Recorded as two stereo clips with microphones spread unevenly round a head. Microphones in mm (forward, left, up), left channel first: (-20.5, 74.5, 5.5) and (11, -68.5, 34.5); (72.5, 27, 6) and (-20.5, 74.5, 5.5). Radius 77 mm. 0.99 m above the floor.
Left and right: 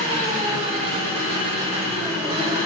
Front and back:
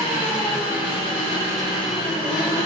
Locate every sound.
0.0 s an engine running: 50° right, 2.5 m